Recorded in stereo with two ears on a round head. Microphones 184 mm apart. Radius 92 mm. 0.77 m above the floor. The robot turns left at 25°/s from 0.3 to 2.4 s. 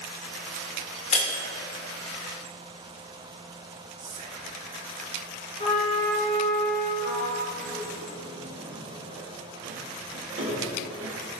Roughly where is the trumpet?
Left.